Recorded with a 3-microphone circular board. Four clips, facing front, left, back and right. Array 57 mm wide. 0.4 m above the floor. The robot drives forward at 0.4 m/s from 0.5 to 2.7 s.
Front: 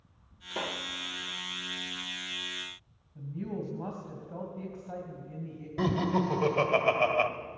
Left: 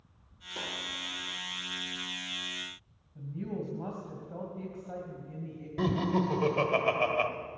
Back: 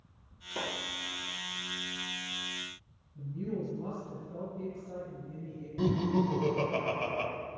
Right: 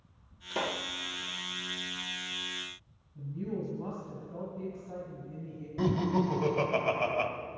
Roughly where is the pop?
Right.